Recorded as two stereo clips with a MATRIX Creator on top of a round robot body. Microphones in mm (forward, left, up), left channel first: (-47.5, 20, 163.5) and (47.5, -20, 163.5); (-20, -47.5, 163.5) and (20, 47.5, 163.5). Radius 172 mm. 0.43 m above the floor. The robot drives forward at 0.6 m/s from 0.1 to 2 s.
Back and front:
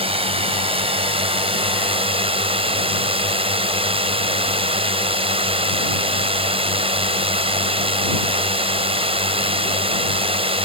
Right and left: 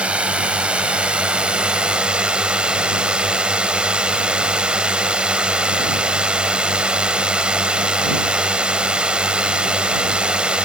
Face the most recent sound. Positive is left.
turn(degrees=-10)